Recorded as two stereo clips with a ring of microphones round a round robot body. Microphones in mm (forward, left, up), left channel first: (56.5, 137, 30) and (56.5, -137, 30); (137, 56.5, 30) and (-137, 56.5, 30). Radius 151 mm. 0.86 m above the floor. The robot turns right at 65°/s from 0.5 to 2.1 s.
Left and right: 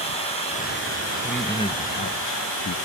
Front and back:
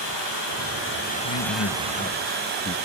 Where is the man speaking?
5° right, 0.6 m; by 2.8 s 55° left, 0.6 m.